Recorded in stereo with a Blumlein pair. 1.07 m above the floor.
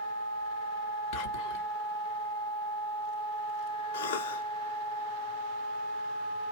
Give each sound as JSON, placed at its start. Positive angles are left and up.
{"t": 1.1, "sound": "whispering", "azimuth_deg": 40, "distance_m": 1.1}
{"t": 3.9, "sound": "a cough", "azimuth_deg": 55, "distance_m": 0.6}